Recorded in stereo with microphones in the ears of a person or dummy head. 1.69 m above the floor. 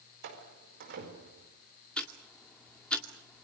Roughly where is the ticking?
Centre.